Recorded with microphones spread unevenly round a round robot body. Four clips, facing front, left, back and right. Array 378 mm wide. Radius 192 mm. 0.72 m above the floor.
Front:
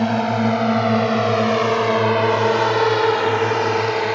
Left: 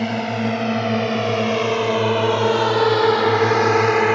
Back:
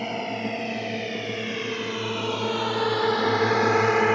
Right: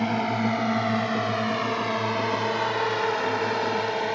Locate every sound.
0.0 s a drone: 15° left; by 4.2 s 85° left